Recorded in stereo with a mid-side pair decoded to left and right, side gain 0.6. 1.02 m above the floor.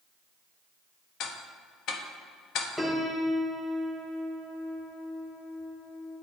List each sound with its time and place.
1.2 s ticking: 60° left, 0.8 m
2.8 s a piano: 10° left, 1.4 m